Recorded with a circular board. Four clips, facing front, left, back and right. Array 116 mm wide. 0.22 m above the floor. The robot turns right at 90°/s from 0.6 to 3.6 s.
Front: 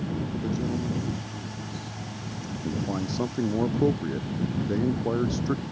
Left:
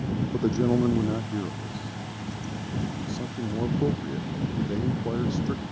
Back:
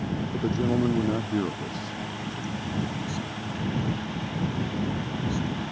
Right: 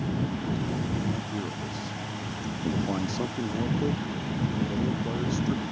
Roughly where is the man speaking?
Left.